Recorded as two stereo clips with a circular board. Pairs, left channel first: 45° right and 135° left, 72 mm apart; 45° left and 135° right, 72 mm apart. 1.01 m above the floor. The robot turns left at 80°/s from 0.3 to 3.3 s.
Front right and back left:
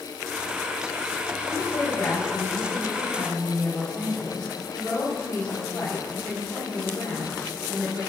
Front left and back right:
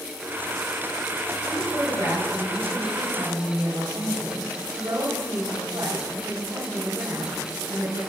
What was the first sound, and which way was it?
A woman speaking, 20° left.